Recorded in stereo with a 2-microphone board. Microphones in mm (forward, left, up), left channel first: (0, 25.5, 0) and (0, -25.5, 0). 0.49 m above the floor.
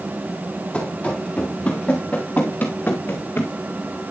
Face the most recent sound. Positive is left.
turn(degrees=40)  # may be behind; listen again after turning